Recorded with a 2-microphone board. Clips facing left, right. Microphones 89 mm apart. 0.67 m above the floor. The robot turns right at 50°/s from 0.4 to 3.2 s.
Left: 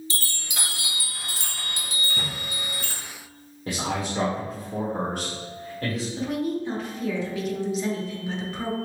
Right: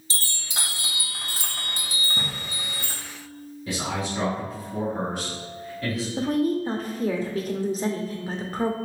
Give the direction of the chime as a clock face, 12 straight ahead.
5 o'clock.